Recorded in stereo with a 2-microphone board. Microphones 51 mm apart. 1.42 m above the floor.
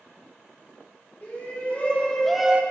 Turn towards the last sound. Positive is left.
turn(degrees=-25)  # may be behind; listen again after turning